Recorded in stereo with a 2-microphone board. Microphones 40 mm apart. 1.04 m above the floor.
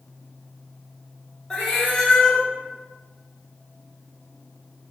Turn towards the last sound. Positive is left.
turn(degrees=15)  # may be behind; listen again after turning